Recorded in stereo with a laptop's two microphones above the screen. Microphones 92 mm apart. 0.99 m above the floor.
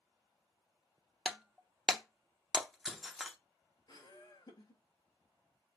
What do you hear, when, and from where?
1.2 s breaking glass: centre (ahead or behind), 0.6 m
3.9 s laughter: 50° left (ahead or behind), 5 m